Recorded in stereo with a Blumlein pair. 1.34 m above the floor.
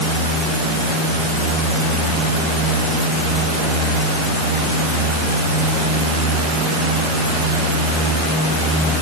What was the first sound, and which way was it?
Only background noise.